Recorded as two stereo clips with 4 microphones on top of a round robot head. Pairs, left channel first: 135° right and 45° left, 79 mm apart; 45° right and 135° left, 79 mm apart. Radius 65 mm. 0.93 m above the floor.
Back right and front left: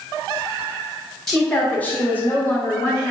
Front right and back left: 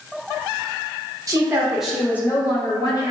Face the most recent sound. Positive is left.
turn(degrees=-70)